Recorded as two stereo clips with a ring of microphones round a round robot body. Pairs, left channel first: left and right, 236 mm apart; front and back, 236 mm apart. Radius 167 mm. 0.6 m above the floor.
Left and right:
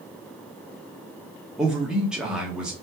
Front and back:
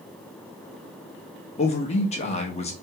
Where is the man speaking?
5° right, 0.9 m.